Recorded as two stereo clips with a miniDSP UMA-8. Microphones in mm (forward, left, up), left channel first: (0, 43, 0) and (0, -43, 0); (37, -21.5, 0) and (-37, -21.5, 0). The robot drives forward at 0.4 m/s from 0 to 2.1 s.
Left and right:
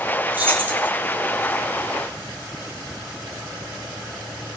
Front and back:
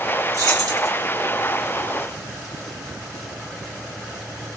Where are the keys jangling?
150° right, 1.0 m; by 0.9 s 160° right, 1.1 m.